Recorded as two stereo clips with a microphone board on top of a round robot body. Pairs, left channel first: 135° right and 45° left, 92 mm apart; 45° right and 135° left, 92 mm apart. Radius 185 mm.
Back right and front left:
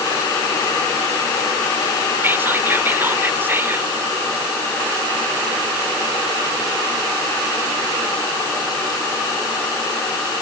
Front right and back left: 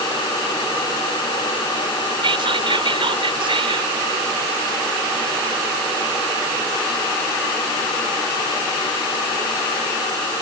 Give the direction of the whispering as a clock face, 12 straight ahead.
8 o'clock.